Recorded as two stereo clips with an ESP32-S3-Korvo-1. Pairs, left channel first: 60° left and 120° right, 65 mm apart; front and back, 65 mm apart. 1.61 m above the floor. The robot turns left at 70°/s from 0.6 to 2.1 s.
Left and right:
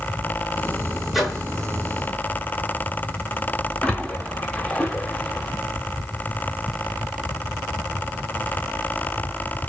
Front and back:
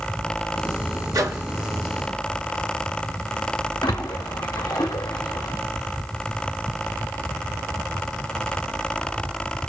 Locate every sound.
1.1 s a microwave: 155° left, 1.1 m; by 1.4 s 135° left, 1.1 m
3.8 s a splash: 15° right, 0.8 m